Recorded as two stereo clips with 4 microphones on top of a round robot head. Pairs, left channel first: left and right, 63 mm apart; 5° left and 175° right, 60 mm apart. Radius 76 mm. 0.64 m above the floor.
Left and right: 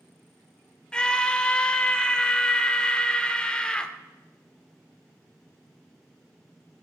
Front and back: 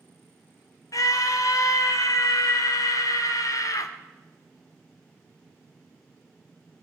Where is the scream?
15° left, 2.0 m.